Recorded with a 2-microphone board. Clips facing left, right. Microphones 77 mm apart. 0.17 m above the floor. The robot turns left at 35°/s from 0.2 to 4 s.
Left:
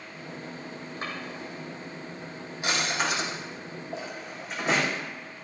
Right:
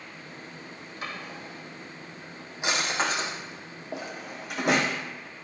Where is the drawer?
35° left (ahead or behind), 4 m; by 4.9 s 65° right (ahead or behind), 4 m.